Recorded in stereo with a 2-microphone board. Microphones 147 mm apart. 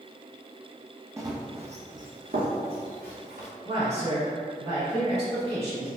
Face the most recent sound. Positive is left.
turn(degrees=-45)  # may be behind; listen again after turning